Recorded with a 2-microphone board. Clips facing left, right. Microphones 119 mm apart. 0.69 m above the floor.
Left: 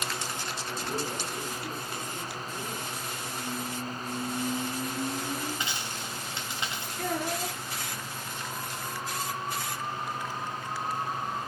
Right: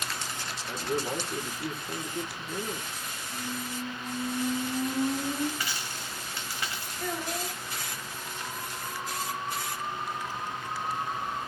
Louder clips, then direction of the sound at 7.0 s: Left 3 dB; 80° left.